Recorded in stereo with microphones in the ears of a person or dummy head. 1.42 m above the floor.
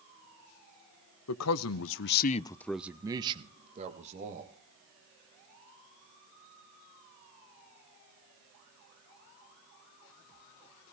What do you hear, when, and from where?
1.3 s a man speaking: 80° left, 1.2 m; by 4.5 s 40° right (ahead or behind), 2 m